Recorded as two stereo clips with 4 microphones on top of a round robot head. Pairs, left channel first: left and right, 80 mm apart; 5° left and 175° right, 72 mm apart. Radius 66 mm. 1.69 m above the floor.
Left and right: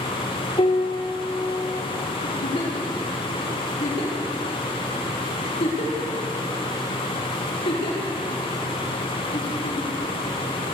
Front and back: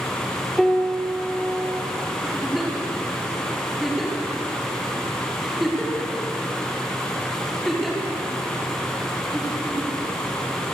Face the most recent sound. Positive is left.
turn(degrees=95)